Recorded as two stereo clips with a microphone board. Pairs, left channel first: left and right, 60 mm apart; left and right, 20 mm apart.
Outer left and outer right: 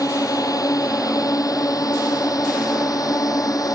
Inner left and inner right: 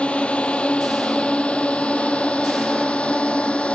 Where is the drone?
80° left.